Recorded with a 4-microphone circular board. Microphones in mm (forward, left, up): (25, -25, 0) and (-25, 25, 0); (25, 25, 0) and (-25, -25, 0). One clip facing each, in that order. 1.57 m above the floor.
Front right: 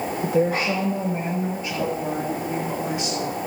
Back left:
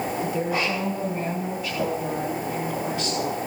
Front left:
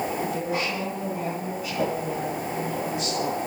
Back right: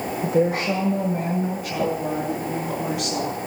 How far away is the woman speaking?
About 1.8 m.